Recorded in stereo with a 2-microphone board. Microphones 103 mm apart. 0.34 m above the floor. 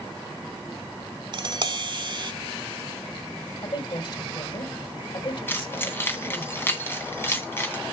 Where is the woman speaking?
50° left (ahead or behind), 2.5 m.